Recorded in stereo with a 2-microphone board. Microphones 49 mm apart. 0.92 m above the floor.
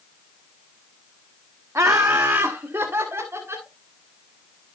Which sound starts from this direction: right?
Laughter, at 1.8 s.